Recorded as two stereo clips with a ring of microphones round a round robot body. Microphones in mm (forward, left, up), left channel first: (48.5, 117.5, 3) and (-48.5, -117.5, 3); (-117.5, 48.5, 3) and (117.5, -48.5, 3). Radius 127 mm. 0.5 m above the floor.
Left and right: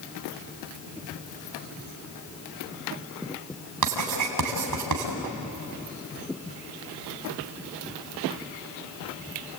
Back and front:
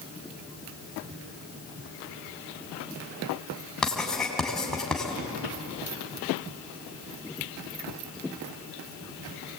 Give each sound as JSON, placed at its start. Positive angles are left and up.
{"t": 3.8, "sound": "writing", "azimuth_deg": -115, "distance_m": 4.0}